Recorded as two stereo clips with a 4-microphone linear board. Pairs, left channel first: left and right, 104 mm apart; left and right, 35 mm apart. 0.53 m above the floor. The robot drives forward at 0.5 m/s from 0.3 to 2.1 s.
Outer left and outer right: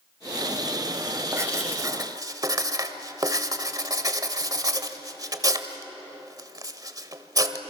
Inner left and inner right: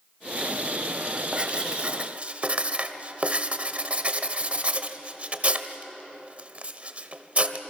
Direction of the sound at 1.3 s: 30° right (ahead or behind).